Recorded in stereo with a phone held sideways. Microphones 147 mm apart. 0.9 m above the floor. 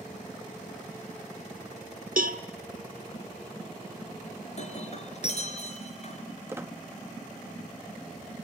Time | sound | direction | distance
2.2 | a cowbell | 70° right (ahead or behind) | 1.0 m
4.6 | breaking glass | 50° left (ahead or behind) | 3.5 m
6.5 | a squeak | 15° right (ahead or behind) | 0.9 m